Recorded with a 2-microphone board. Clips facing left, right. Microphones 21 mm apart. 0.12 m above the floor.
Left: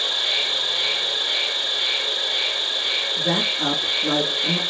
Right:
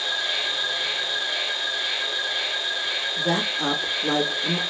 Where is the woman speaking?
20° left (ahead or behind), 1.1 m.